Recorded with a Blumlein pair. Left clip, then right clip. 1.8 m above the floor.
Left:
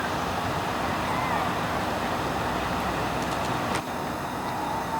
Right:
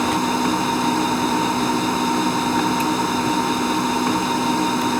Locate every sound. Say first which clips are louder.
0.0 s a machine running: right 8 dB; 35° right